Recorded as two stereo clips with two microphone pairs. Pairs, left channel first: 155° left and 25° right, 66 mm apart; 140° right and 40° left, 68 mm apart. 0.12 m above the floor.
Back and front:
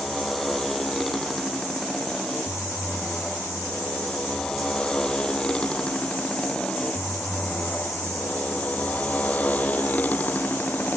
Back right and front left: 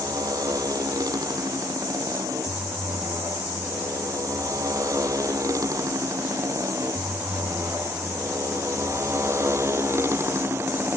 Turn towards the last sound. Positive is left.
turn(degrees=95)